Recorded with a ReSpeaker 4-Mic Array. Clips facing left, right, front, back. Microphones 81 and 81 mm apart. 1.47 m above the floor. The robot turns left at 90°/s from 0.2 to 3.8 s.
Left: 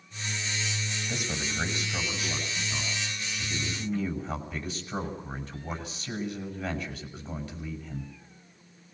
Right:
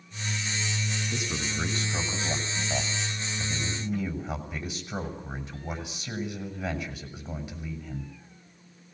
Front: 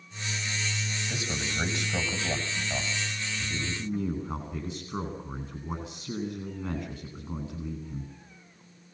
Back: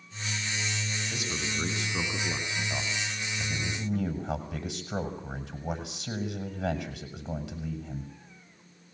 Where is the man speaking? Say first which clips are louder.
Right 1 dB, front 2 dB; 80° left, 7.5 m; by 8.1 s 165° right, 7.5 m.